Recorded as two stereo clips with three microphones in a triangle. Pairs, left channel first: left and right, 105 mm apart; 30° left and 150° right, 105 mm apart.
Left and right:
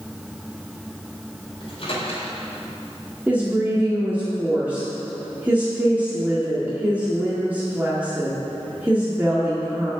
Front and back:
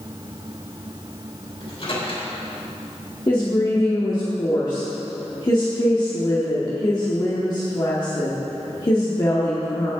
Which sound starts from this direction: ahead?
A woman speaking, at 3.3 s.